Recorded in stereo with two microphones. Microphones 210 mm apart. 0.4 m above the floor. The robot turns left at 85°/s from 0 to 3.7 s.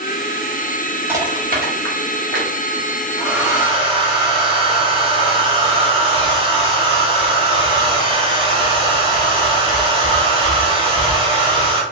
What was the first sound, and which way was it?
Crushing, 10° right (ahead or behind).